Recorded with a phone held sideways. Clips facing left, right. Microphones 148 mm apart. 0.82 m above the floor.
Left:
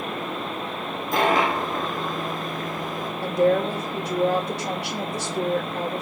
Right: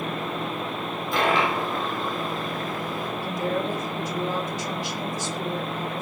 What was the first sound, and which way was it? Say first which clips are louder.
A dropped coin: left 2 dB; 45° left (ahead or behind).